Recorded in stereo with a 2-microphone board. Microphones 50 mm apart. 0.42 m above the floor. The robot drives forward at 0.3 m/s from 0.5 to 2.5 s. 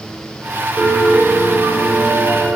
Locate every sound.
0.8 s a piano: 40° right (ahead or behind), 0.8 m